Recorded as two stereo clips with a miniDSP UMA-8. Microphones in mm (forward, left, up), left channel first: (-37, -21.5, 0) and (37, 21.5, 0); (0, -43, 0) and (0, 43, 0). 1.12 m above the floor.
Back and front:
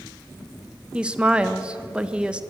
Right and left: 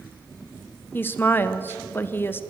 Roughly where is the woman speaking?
Ahead right.